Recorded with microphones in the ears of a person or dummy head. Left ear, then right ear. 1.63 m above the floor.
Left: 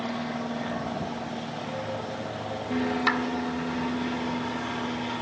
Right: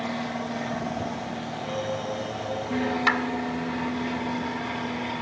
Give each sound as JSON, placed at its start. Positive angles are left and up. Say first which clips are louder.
{"t": 0.0, "sound": "an aircraft", "louder": "right 1 dB", "side_deg": -5}
{"t": 1.6, "sound": "singing", "louder": "right 5 dB", "side_deg": -65}
{"t": 3.1, "sound": "a clap", "louder": "right 3 dB", "side_deg": -15}